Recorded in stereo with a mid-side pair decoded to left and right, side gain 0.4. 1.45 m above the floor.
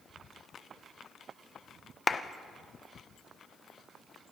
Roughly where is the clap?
Ahead left.